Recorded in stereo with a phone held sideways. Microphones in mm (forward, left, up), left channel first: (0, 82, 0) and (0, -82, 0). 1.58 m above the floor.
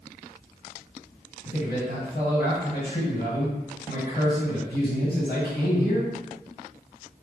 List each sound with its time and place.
1.4 s a man speaking: 75° left (ahead or behind), 1.6 m